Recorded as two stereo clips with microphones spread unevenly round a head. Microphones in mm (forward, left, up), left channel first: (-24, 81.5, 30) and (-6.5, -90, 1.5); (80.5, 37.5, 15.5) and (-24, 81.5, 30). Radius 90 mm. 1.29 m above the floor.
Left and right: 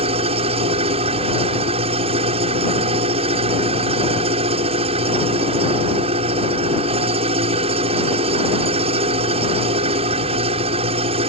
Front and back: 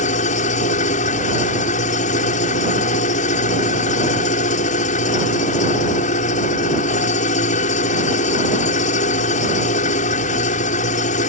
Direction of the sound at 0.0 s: 25° right.